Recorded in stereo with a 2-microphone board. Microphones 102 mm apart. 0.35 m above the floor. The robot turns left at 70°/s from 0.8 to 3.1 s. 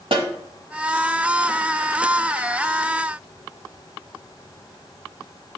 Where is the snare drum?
60° right (ahead or behind), 1.4 m.